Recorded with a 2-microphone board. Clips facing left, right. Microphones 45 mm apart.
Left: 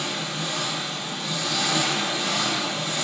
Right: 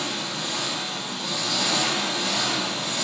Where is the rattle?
No rattle in this recording.